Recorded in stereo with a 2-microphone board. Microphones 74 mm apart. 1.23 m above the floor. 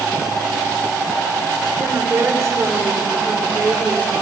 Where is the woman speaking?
45° right (ahead or behind), 4.5 m; by 4.2 s 20° right (ahead or behind), 3.5 m.